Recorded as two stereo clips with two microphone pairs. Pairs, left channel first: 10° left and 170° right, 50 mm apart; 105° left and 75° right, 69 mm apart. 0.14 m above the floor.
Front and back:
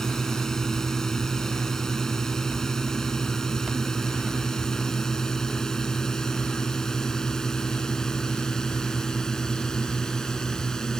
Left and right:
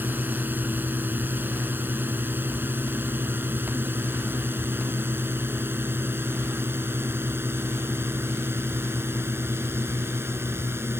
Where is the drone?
60° right.